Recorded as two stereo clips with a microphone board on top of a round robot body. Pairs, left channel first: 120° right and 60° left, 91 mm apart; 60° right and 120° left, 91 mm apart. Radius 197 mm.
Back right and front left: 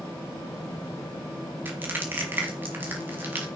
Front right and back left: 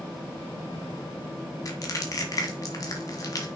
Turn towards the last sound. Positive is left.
turn(degrees=-10)